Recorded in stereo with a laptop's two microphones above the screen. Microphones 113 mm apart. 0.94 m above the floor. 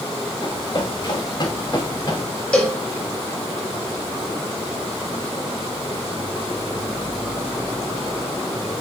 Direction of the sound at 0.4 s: 40° left (ahead or behind).